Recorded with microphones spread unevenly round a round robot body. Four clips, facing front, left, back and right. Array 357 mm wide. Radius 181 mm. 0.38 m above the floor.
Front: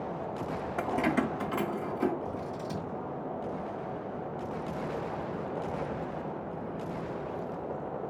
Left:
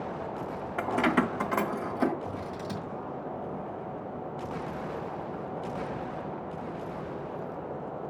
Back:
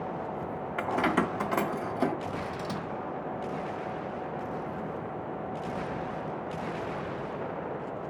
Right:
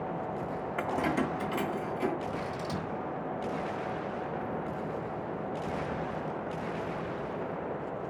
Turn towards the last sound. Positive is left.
turn(degrees=170)